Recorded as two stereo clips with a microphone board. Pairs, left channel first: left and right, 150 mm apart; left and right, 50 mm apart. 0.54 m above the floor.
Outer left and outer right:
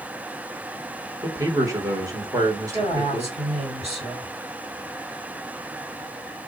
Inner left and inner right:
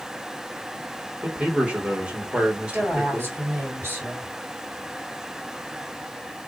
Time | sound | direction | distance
1.2 | a man speaking | 25° right (ahead or behind) | 1.8 m
2.7 | a woman speaking | 45° right (ahead or behind) | 3 m